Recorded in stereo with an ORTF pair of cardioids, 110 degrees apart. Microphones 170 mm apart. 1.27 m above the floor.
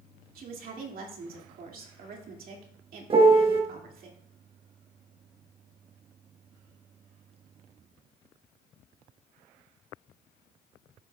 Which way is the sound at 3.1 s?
30° right.